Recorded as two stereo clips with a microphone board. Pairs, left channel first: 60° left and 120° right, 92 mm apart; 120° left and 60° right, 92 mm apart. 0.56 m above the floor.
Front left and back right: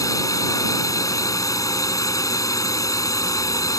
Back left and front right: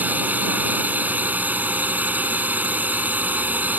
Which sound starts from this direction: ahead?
A drone, at 0.0 s.